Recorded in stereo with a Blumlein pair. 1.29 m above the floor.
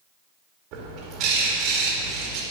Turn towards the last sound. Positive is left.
turn(degrees=-40)